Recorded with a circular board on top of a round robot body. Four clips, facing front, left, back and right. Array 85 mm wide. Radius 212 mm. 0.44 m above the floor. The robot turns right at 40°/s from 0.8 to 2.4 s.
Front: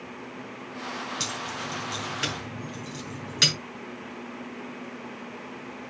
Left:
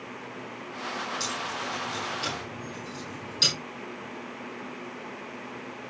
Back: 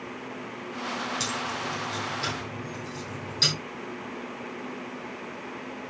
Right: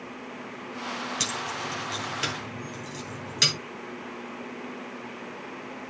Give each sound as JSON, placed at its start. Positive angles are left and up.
{"t": 1.2, "sound": "keys jangling", "azimuth_deg": -80, "distance_m": 3.5}